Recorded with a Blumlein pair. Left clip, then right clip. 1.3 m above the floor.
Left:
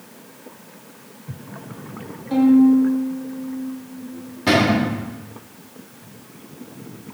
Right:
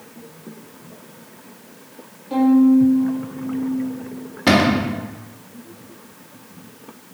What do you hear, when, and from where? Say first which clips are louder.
2.3 s a violin: even; 5° left, 2.5 m
4.5 s a cupboard door: right 1 dB; 20° right, 1.5 m